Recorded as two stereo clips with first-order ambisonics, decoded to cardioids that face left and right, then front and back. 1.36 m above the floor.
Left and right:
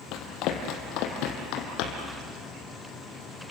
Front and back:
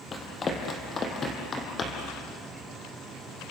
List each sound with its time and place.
0.1 s running footsteps: 65° left, 2.5 m; by 2.1 s 70° left, 3.5 m